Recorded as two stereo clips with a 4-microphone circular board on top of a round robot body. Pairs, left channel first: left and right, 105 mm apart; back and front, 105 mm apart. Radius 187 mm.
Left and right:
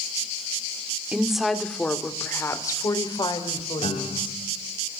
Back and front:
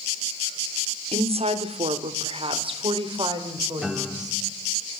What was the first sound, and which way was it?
A woman speaking, 10° right.